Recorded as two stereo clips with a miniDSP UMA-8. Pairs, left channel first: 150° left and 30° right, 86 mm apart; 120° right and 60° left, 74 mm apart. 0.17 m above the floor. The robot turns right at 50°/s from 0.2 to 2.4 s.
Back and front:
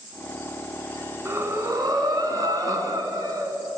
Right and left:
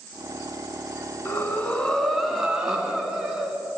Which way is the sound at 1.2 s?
75° right.